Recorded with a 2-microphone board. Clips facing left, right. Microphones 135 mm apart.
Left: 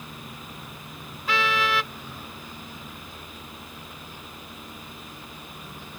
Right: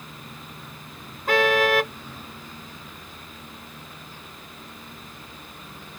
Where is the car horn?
50° right (ahead or behind).